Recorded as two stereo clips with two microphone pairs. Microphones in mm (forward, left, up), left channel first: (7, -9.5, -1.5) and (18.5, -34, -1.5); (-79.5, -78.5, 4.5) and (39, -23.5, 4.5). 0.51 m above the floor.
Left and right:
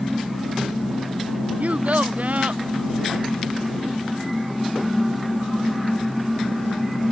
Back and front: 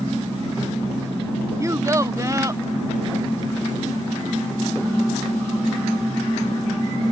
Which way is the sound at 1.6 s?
40° right.